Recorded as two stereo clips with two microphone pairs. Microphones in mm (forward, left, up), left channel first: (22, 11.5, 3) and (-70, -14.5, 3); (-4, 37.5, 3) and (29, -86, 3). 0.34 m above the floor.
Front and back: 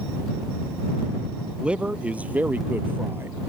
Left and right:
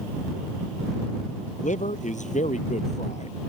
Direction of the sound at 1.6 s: 115° left.